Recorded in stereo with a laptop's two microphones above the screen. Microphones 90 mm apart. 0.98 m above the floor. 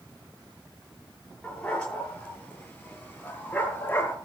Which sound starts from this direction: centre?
A dog barking, at 1.4 s.